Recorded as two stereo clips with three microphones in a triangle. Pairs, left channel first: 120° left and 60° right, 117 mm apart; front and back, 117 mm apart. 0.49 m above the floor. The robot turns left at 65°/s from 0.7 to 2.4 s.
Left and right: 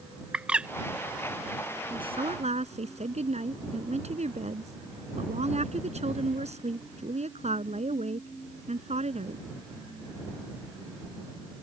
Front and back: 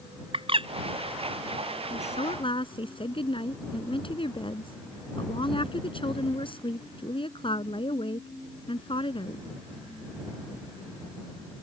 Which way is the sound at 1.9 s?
10° right.